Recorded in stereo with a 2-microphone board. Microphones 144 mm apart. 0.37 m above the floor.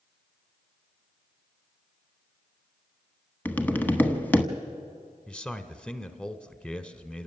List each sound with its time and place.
3.5 s tapping: 15° left (ahead or behind), 0.9 m
5.3 s a man speaking: 10° left (ahead or behind), 1.0 m